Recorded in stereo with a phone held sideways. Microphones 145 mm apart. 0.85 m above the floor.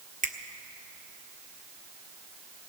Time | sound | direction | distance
0.2 | a finger snap | 60° right (ahead or behind) | 1.0 m